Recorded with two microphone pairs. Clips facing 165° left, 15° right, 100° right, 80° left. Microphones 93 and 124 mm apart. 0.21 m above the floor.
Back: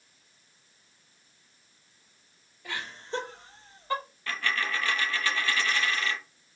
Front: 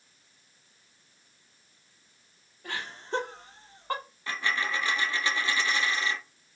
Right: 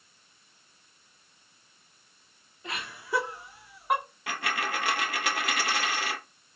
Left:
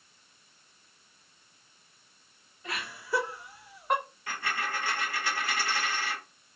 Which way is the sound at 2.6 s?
40° right.